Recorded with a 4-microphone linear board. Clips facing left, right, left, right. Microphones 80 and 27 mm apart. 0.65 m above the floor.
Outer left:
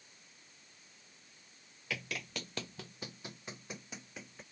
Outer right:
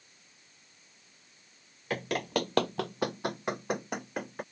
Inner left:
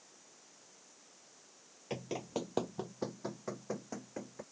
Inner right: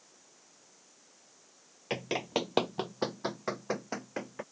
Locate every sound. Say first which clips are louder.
1.9 s running footsteps: outer right 11 dB, inner right 7 dB; 45° right (ahead or behind); by 4.4 s 55° right (ahead or behind)